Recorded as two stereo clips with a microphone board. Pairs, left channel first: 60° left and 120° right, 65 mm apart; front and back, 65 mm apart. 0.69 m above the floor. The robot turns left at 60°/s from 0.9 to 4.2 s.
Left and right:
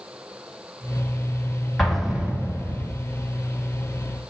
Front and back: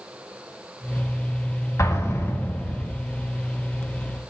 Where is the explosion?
30° right, 1.5 m; by 2.9 s 95° right, 1.5 m.